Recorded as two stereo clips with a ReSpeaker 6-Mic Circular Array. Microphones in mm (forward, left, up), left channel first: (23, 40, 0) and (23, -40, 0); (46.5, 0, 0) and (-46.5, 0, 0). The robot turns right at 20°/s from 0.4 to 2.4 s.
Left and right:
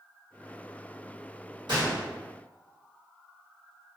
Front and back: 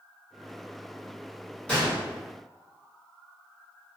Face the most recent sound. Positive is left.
turn(degrees=-65)